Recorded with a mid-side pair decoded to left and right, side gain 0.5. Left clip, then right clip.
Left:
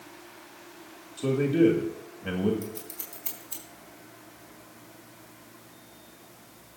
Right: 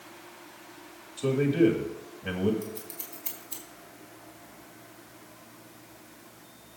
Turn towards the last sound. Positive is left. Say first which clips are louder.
# even
turn(degrees=20)